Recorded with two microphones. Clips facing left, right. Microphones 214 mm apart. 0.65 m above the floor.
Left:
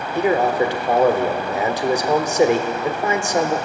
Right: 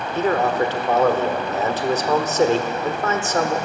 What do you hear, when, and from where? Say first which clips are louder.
0.1 s a man speaking: left 2 dB; 15° left (ahead or behind), 1.4 m